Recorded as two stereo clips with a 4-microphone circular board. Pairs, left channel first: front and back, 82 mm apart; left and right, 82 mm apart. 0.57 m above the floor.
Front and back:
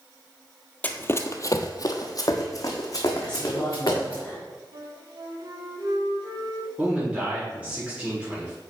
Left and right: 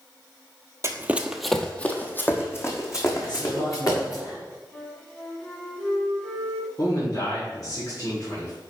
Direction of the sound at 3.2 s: 75° left.